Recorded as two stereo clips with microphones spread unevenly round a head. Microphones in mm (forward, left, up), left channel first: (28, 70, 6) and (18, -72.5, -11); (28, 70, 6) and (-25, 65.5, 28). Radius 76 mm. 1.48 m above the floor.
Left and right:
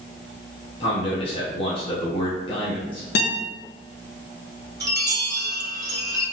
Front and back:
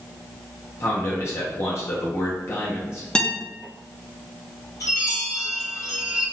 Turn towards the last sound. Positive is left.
turn(degrees=-35)